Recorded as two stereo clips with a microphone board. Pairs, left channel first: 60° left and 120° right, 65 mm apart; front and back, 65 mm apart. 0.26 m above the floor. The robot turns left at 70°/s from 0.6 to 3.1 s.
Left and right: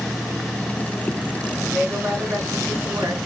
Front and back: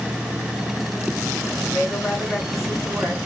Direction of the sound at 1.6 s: 30° right.